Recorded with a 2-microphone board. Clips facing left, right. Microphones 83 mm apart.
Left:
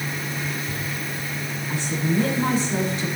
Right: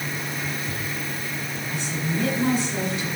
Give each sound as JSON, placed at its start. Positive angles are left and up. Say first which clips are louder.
{"t": 1.7, "sound": "a woman speaking", "louder": "left 5 dB", "side_deg": 40, "distance_m": 7.0}